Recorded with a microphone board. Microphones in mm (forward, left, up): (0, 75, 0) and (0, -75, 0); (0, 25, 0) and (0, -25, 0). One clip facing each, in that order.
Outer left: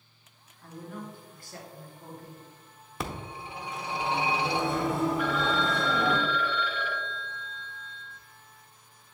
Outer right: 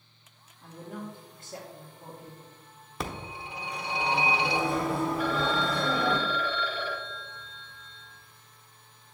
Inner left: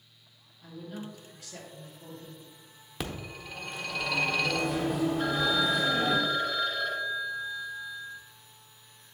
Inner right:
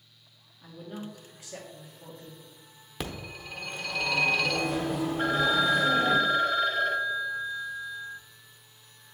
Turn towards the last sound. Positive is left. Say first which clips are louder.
# even, inner right 2 dB
turn(degrees=-35)  # may be behind; listen again after turning